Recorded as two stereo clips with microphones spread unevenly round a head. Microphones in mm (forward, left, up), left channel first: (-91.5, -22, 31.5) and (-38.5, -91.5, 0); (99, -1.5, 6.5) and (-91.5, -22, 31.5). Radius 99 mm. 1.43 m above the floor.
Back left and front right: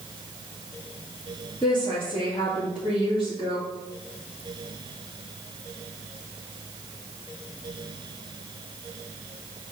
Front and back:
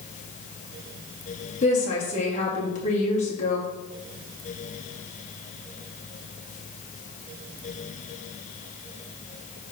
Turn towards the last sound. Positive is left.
turn(degrees=65)